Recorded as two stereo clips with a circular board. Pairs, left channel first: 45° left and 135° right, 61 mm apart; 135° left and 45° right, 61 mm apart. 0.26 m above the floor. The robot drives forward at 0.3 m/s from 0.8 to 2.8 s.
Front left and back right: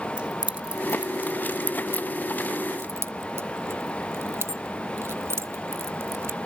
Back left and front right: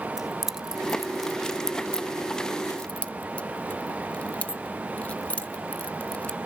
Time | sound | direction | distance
0.2 | keys jangling | 115° right | 0.6 m